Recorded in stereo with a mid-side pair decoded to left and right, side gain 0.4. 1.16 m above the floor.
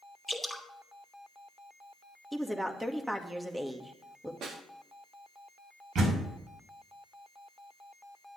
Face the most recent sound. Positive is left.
turn(degrees=-65)